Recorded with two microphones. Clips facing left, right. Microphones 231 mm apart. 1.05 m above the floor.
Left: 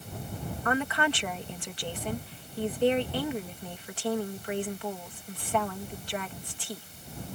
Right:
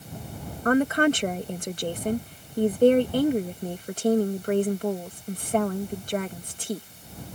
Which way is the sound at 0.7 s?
45° right (ahead or behind).